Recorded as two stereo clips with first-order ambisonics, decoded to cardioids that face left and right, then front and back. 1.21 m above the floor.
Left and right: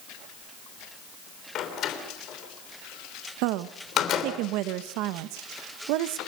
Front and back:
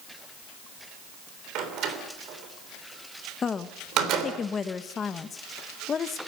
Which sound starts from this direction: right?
A woman speaking, at 3.4 s.